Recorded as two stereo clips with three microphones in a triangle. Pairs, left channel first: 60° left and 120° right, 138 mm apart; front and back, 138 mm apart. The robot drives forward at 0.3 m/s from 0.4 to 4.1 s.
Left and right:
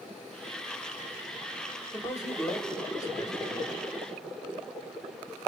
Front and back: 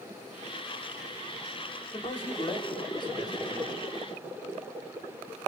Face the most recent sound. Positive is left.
turn(degrees=30)